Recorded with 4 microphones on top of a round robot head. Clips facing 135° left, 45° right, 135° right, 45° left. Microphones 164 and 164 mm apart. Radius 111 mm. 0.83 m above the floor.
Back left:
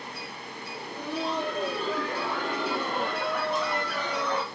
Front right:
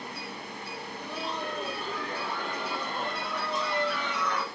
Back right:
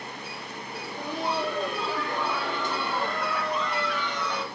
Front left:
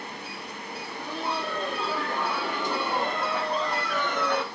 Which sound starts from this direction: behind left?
Laughter, at 0.8 s.